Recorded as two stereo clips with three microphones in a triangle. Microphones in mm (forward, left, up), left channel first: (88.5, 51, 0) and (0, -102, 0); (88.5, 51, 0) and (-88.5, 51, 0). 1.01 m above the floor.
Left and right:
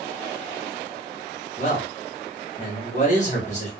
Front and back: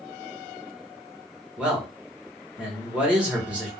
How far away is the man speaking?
About 1.3 m.